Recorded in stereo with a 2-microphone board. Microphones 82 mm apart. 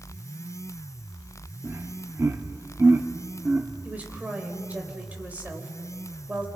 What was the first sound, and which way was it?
Laughter, 30° right (ahead or behind).